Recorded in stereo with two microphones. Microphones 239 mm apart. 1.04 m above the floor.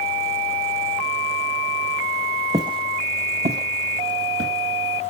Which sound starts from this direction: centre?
Footsteps, at 2.5 s.